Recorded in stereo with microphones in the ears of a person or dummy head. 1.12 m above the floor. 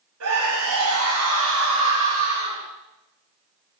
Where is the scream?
85° right, 6 m.